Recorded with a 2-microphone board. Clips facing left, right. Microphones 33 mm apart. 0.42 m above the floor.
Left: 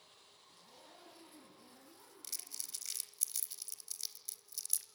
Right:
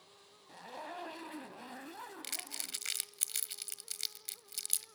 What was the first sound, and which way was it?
A zipper, 75° right (ahead or behind).